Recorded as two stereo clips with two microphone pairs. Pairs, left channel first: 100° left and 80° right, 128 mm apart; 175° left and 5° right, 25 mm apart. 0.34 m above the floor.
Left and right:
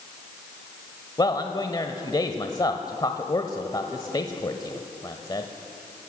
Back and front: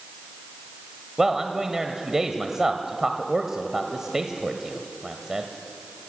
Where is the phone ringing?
No phone ringing in this recording.